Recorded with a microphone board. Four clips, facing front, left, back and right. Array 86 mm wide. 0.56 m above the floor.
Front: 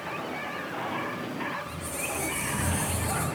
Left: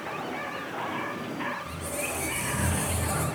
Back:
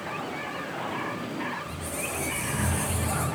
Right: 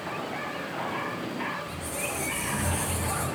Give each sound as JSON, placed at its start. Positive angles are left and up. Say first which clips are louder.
{"t": 1.6, "sound": "a squeak", "louder": "even, back 1 dB", "azimuth_deg": 90, "distance_m": 1.3}